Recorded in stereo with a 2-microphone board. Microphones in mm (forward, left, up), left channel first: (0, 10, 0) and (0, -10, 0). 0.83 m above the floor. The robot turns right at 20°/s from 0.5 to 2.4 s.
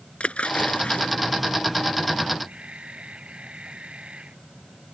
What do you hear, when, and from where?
0.2 s a splash: 75° left (ahead or behind)
2.5 s a camera shutter: 60° right (ahead or behind)